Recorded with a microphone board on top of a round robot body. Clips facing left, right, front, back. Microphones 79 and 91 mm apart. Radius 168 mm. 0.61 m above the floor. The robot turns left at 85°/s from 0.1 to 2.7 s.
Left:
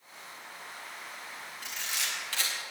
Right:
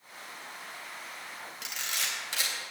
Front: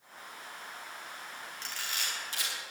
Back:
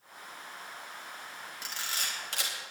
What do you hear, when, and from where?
1.6 s a camera shutter: 100° right, 3.5 m; by 2.5 s 175° right, 3.5 m